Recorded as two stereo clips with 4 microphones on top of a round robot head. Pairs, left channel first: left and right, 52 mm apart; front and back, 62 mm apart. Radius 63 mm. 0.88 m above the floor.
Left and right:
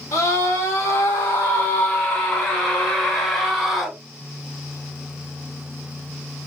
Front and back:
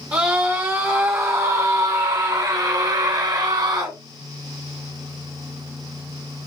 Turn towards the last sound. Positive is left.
turn(degrees=180)